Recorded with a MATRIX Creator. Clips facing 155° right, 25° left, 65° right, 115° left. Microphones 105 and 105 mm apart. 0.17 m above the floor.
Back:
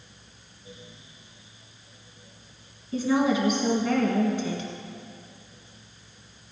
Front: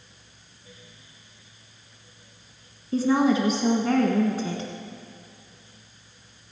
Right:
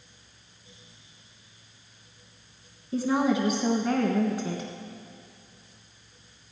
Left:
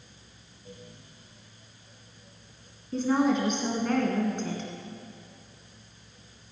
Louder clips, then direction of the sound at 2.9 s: Front 2 dB, even; 10° left.